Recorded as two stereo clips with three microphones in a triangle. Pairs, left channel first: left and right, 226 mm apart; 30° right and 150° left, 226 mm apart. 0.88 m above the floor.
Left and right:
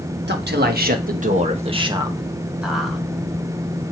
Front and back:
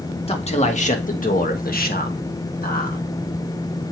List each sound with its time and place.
0.3 s a man speaking: 85° right, 1.4 m; by 3.0 s 5° left, 1.4 m